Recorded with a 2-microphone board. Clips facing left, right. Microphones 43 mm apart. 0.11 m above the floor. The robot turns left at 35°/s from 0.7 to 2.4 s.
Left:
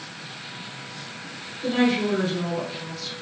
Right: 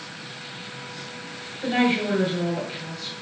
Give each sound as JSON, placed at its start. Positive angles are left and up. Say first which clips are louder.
{"t": 1.6, "sound": "a woman speaking", "louder": "even", "side_deg": -40, "distance_m": 1.5}